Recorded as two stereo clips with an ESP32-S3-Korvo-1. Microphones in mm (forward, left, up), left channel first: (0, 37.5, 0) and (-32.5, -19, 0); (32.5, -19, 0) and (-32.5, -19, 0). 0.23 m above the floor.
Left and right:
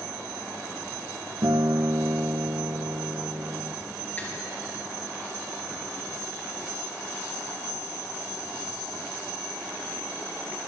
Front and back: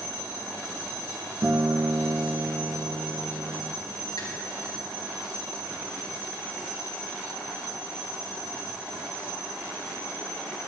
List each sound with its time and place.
1.4 s a guitar: 125° right, 0.6 m
4.2 s a finger snap: straight ahead, 3 m